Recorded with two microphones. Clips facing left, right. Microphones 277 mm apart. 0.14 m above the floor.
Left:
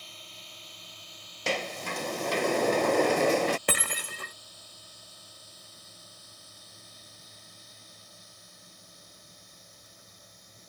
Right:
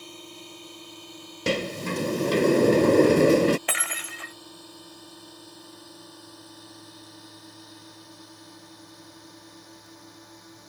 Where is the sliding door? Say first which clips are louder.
Right 7 dB; 45° right (ahead or behind).